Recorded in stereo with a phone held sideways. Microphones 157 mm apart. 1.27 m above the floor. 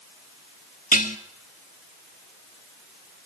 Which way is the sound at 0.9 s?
60° left (ahead or behind).